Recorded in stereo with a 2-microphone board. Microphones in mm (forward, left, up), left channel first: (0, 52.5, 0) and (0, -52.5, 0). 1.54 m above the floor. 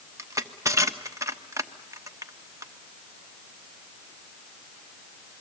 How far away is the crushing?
About 1.0 m.